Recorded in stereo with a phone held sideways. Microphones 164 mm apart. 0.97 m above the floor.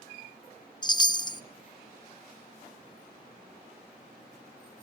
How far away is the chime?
About 0.6 m.